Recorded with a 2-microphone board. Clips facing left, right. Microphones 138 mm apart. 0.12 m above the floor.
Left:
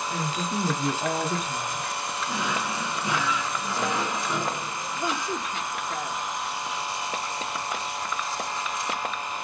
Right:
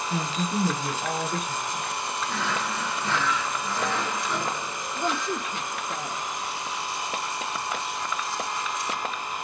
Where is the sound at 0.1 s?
10° right (ahead or behind), 1.3 m; by 1.9 s 50° left (ahead or behind), 1.8 m.